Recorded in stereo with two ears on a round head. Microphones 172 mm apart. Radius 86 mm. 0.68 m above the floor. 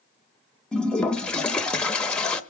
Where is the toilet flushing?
5° left (ahead or behind), 0.7 m.